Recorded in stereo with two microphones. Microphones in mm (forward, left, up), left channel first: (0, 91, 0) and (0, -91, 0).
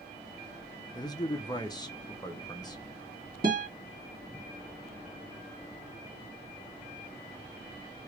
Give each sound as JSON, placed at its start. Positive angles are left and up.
{"t": 0.9, "sound": "a man speaking", "side_deg": 20, "distance_m": 0.6}
{"t": 3.4, "sound": "a guitar", "side_deg": -55, "distance_m": 1.8}